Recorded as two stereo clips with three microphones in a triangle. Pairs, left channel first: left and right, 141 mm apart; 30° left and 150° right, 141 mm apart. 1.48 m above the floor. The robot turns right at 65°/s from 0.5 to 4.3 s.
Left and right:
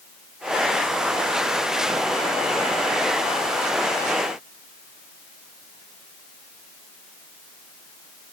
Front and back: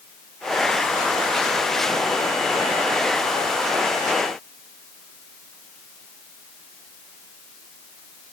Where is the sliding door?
No sliding door in this recording.